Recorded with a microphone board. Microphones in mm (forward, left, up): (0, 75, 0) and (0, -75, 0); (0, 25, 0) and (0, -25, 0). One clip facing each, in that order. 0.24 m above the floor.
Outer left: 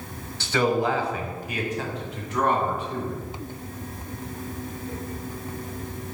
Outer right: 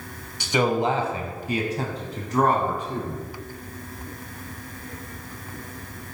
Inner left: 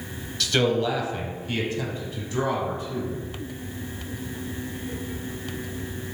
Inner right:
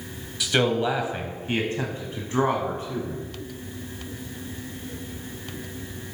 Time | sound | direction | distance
0.4 | a man speaking | 15° right (ahead or behind) | 0.9 m